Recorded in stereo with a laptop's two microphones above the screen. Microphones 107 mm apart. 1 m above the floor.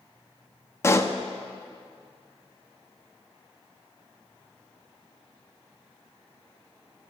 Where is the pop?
25° left (ahead or behind), 0.9 m.